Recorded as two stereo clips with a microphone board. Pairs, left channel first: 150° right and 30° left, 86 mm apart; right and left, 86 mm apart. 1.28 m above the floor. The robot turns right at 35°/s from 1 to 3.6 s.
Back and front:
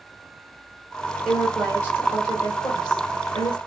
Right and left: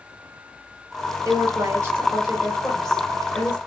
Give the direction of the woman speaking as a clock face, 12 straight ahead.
8 o'clock.